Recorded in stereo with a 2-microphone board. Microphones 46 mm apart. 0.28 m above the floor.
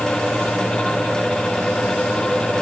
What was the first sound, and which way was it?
Only background noise.